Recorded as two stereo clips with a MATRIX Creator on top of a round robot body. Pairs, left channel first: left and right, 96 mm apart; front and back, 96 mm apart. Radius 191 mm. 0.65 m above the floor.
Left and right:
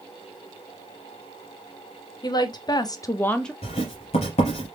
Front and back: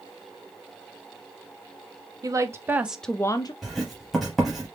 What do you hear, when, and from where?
2.2 s a woman speaking: 130° left, 1.0 m; by 3.5 s 5° left, 0.7 m
3.6 s writing: 90° left, 0.7 m